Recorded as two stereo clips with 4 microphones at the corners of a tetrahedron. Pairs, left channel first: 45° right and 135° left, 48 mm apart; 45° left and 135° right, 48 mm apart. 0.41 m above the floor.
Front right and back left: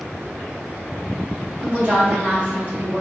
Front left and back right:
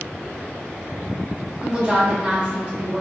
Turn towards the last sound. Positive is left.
turn(degrees=170)